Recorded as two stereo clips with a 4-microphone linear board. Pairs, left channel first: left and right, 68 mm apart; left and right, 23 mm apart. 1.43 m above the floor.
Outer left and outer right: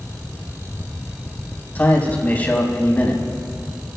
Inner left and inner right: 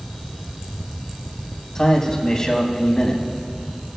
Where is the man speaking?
25° left (ahead or behind), 4 m.